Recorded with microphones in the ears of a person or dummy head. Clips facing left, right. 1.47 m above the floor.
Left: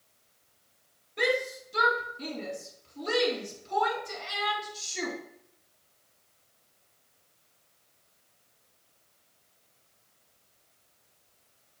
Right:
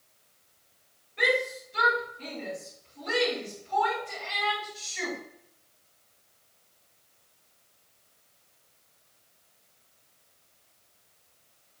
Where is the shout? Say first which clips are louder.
Even; 65° left (ahead or behind), 3.5 m.